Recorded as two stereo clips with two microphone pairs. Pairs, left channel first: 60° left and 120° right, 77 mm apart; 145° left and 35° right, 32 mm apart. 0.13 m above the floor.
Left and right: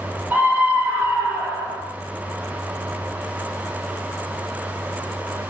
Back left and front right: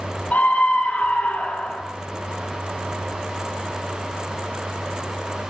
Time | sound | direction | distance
0.3 | a scream | 175° left | 3 m